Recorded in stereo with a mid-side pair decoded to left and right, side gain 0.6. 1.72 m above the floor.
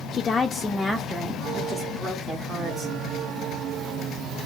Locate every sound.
0.1 s a woman speaking: 45° left, 0.5 m; by 3.0 s 35° right, 1.9 m